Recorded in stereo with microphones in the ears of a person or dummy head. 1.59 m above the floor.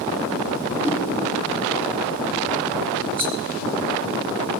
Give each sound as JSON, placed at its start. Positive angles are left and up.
{"t": 0.8, "sound": "a whoosh", "side_deg": -15, "distance_m": 2.5}
{"t": 3.2, "sound": "a rattle", "side_deg": -15, "distance_m": 2.0}